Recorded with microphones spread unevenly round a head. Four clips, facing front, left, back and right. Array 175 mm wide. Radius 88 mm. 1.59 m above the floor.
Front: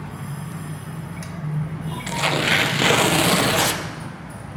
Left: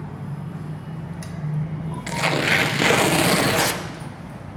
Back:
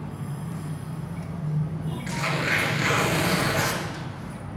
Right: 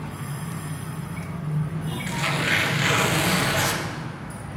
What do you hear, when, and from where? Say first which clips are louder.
2.1 s tearing paper: left 5 dB, front 6 dB; 50° left, 0.7 m